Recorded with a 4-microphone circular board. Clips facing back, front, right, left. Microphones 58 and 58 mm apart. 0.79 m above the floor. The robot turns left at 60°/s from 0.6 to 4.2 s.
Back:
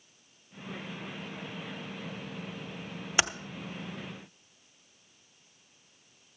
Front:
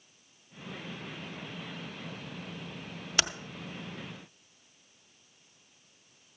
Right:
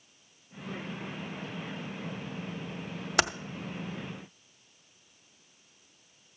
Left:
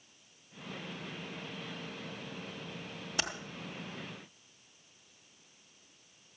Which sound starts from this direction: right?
Typing on a keyboard, at 3.2 s.